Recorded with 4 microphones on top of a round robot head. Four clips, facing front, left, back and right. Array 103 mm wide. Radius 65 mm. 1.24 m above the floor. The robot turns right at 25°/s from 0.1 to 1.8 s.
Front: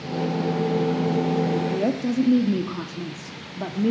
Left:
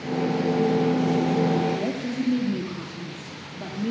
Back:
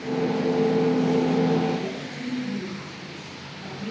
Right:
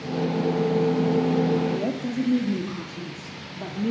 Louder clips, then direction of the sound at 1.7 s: Even, front 5 dB; 5° right.